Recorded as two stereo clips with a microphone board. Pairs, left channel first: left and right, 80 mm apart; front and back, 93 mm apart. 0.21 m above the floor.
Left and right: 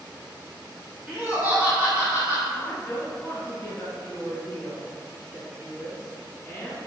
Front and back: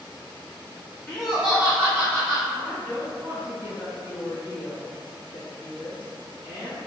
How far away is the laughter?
About 1.7 m.